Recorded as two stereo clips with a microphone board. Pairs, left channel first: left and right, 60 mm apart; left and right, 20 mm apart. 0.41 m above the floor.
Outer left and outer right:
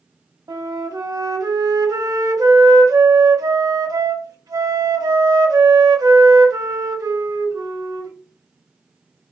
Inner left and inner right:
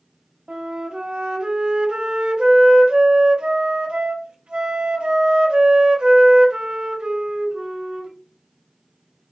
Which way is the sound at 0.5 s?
65° right (ahead or behind).